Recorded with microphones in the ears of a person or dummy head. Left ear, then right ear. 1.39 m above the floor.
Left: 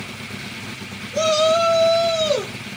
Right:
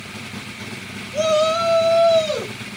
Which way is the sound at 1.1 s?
45° left (ahead or behind).